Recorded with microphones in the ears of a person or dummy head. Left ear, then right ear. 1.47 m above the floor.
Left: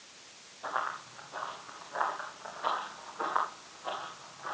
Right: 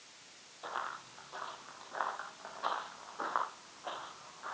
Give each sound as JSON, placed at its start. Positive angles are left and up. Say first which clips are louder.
{"t": 0.6, "sound": "running footsteps", "louder": "left 6 dB", "side_deg": -20, "distance_m": 2.5}